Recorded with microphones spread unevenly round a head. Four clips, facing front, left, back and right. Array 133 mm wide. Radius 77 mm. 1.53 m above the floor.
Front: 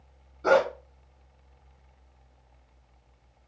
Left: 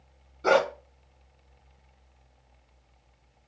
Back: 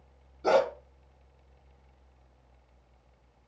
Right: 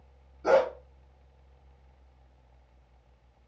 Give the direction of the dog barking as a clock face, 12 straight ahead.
10 o'clock.